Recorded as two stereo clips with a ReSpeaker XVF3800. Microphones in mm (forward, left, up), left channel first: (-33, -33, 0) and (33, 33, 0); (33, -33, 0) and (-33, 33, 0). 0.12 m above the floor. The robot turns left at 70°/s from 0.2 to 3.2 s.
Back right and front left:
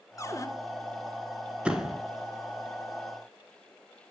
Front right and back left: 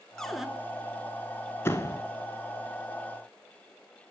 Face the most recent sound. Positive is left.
turn(degrees=-130)